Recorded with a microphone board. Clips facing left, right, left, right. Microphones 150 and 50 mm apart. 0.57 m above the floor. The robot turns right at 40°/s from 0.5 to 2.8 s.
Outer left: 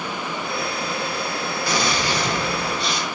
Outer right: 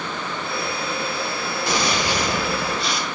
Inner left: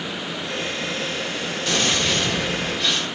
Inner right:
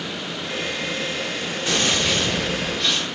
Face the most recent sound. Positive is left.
turn(degrees=0)  # may be behind; listen again after turning